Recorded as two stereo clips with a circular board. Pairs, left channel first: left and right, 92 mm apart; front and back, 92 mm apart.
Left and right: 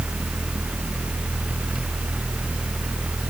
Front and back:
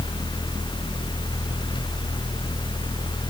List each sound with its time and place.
Only background noise.